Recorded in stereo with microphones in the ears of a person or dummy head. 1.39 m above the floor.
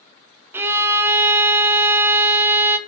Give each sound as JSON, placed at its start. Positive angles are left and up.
{"t": 0.5, "sound": "a violin", "side_deg": -10, "distance_m": 0.6}